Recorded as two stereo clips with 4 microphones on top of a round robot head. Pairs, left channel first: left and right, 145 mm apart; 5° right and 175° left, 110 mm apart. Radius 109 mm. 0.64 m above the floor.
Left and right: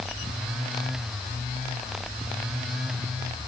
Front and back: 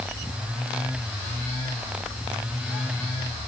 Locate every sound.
Only background noise.